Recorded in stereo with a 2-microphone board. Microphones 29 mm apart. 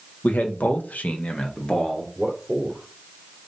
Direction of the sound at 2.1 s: 10° right (ahead or behind).